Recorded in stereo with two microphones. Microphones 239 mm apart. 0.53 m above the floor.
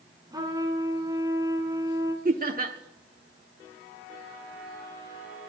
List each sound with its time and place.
0.3 s a trumpet: 15° right (ahead or behind), 1.9 m
2.2 s laughter: 35° right (ahead or behind), 1.0 m